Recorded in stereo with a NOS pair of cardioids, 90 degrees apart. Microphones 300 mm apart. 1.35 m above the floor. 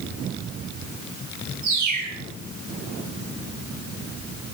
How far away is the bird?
About 2 m.